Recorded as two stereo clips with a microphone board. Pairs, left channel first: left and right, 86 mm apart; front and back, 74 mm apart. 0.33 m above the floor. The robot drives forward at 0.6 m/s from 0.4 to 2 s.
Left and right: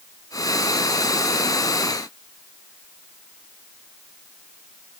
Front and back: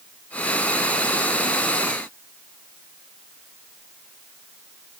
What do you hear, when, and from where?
Only background noise.